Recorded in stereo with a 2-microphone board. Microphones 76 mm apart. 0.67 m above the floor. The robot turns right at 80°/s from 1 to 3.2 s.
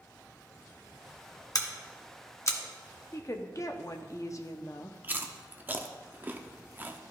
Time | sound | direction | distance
1.6 | scissors | 50° left (ahead or behind) | 0.8 m
3.1 | a woman speaking | 40° left (ahead or behind) | 0.6 m
5.0 | chewing | 25° right (ahead or behind) | 0.5 m